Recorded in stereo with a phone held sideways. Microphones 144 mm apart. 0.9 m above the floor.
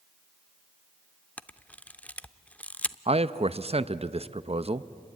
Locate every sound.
1.4 s a camera shutter: 10° left (ahead or behind), 0.5 m
3.1 s a man speaking: 45° right (ahead or behind), 0.6 m